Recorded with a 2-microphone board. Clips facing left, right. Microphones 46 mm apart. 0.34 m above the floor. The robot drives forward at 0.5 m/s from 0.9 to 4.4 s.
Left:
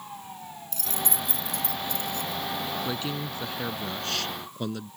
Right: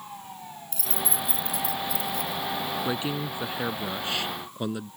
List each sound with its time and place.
0.7 s keys jangling: 5° right (ahead or behind)
2.9 s a man speaking: 15° right (ahead or behind)